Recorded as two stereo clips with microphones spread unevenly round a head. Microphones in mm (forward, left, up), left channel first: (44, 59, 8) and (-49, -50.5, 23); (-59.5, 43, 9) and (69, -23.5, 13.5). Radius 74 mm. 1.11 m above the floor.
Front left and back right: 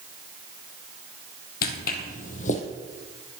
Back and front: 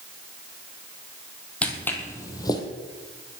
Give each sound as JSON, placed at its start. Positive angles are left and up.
{"t": 1.6, "sound": "footsteps", "azimuth_deg": 70, "distance_m": 2.0}